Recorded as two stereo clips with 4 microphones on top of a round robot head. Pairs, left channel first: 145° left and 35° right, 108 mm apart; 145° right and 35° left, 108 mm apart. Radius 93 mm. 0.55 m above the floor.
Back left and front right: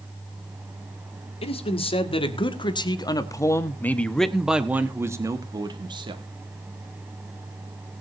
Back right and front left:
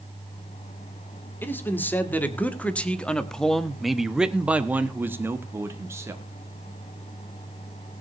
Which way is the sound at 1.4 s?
145° left.